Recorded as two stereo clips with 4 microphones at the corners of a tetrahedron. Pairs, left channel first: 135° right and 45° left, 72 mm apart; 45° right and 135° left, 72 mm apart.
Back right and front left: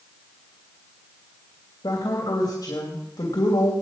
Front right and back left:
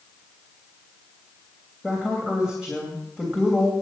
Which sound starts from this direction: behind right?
A woman speaking, at 1.8 s.